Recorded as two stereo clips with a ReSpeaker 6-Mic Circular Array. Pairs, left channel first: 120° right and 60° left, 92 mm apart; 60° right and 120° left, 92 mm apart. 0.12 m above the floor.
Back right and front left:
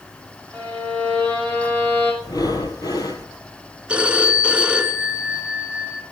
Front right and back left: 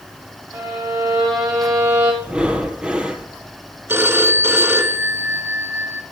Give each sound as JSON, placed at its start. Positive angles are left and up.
{"t": 0.5, "sound": "a violin", "azimuth_deg": 170, "distance_m": 6.5}
{"t": 2.2, "sound": "breathing", "azimuth_deg": -165, "distance_m": 1.0}
{"t": 3.9, "sound": "a phone ringing", "azimuth_deg": 115, "distance_m": 1.1}